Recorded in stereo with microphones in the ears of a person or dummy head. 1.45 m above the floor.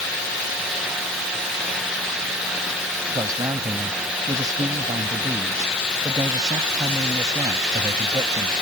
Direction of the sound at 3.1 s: 25° right (ahead or behind).